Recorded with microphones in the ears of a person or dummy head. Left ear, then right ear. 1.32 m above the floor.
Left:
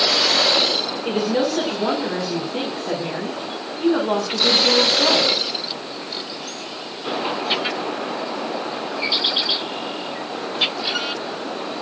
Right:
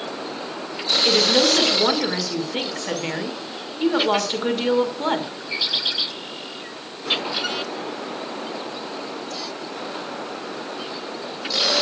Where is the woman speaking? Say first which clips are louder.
Right 6 dB; 70° right (ahead or behind), 6 m.